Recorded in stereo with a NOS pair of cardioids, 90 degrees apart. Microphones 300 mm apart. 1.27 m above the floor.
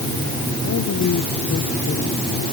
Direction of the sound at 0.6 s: 65° left.